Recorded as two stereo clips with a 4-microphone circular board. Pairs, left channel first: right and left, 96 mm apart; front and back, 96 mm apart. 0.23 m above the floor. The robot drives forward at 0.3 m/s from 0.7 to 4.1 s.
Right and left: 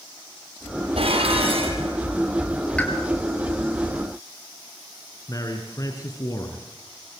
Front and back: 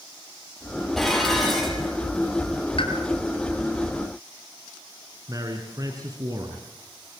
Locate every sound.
1.0 s dishes clattering: 85° left, 5.5 m; by 2.0 s 90° left, 5.5 m
2.8 s a pop: 15° right, 5 m
5.3 s a man speaking: 135° right, 3 m